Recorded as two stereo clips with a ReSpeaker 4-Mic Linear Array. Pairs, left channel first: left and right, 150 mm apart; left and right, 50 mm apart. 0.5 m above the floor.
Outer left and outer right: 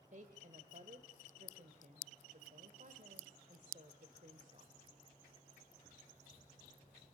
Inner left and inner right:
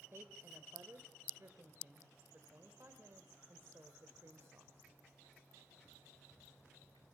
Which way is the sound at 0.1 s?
55° right (ahead or behind).